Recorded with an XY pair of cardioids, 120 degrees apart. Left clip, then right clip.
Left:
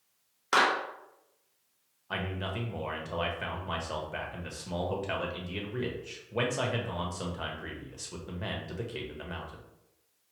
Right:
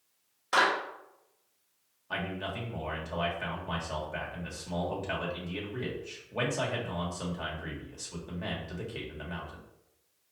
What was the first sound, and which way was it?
A clap, 45° left.